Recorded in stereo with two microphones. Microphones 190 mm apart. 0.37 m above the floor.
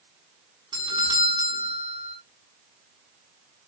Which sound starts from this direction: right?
A doorbell, at 0.7 s.